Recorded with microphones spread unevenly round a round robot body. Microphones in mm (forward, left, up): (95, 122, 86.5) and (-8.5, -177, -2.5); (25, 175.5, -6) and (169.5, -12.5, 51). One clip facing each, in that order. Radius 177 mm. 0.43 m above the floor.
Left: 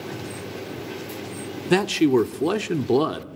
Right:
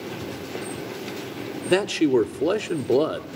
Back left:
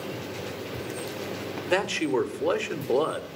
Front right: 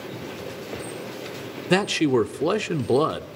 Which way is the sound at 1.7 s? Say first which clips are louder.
Left 1 dB, front right 6 dB; 15° right.